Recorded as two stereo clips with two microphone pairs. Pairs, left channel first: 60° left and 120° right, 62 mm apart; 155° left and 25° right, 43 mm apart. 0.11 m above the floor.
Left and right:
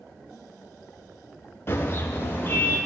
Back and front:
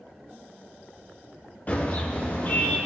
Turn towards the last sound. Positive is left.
turn(degrees=110)